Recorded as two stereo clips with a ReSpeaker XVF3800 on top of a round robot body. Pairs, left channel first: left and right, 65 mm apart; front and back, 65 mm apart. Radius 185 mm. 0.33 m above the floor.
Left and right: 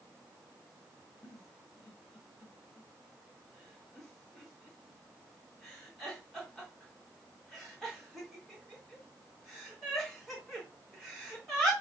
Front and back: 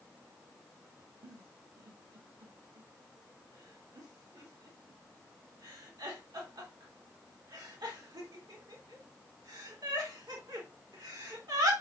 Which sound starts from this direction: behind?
A giggle, at 1.2 s.